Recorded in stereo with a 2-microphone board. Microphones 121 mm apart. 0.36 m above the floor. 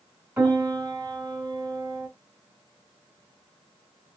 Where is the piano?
20° right (ahead or behind), 2.0 m.